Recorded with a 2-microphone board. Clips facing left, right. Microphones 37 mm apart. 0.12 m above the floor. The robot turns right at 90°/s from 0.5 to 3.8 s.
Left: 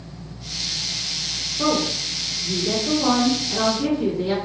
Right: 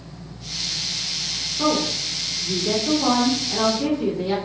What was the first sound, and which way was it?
A woman speaking, 130° right.